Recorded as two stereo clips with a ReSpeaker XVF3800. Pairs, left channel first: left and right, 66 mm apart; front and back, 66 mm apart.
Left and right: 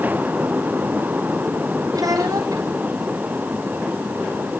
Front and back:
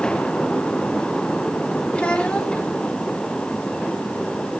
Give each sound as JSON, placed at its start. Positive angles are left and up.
{"t": 1.9, "sound": "a child speaking", "azimuth_deg": -75, "distance_m": 3.5}